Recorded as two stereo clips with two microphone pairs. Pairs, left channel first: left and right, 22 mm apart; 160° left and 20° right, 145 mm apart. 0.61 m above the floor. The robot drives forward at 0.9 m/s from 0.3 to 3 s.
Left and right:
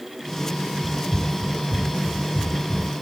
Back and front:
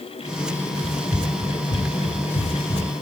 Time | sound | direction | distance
0.8 | running footsteps | 160° right | 8 m